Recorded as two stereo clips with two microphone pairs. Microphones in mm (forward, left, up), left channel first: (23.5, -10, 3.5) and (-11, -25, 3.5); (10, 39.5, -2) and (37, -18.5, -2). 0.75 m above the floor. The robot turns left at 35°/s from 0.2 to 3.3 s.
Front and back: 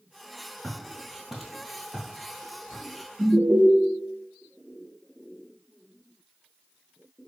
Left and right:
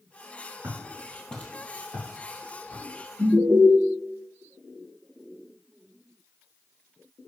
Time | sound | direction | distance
0.6 | footsteps | 40° right | 1.0 m
3.2 | an alarm | 100° right | 0.7 m